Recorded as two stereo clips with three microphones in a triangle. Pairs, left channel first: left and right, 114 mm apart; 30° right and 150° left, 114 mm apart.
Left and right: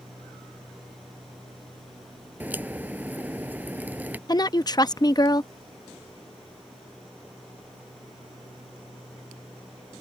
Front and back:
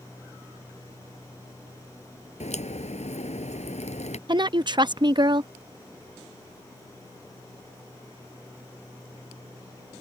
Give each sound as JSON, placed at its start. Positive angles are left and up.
{"t": 2.4, "sound": "a crack", "azimuth_deg": -15}
{"t": 4.3, "sound": "a woman speaking", "azimuth_deg": 125}